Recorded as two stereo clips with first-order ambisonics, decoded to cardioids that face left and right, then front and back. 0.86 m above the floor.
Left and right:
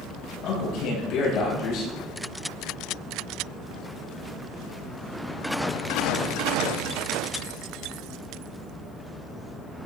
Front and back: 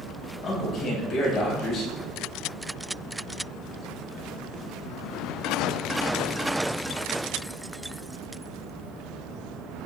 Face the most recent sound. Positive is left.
turn(degrees=60)